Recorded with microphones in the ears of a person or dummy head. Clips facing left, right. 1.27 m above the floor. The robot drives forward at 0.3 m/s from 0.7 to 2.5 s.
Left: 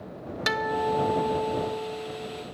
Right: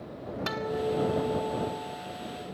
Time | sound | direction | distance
0.5 | a guitar | 25° left (ahead or behind) | 0.8 m